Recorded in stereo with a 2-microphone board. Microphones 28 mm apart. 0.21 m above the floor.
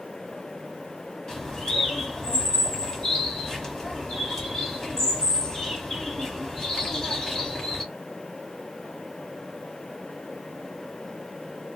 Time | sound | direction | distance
1.3 | a bird | 25° left (ahead or behind) | 1.0 m